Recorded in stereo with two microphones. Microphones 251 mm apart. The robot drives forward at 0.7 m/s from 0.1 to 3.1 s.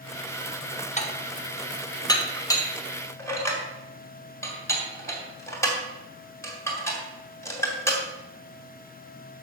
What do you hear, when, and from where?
1.0 s dishes clattering: 30° left (ahead or behind), 1.0 m; by 8.0 s 10° left (ahead or behind), 2.5 m